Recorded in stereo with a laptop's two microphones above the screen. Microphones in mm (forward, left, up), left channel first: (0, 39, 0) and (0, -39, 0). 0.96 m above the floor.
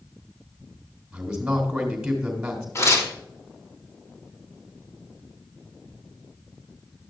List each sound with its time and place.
1.1 s a man speaking: 10° right (ahead or behind), 2.5 m
2.8 s tearing paper: 40° left (ahead or behind), 2.5 m